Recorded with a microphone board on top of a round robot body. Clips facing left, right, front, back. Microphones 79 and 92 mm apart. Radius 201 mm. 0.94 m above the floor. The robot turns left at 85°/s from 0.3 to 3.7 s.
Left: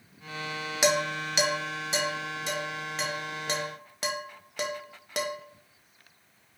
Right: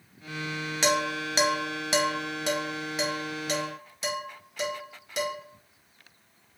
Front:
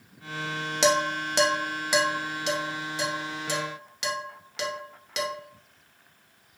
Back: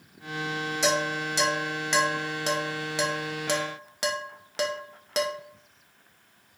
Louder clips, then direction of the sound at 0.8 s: Even, front 4 dB; 10° left.